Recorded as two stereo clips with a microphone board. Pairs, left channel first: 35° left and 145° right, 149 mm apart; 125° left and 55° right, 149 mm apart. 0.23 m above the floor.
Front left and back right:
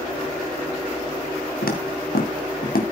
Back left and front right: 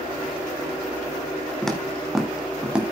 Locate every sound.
1.6 s footsteps: 40° left, 2.5 m; by 2.8 s 25° left, 3 m